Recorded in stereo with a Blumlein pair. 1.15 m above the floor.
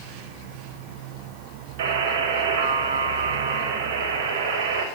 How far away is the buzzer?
About 5.5 m.